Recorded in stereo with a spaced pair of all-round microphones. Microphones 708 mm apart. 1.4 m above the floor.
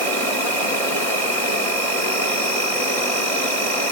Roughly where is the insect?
Right.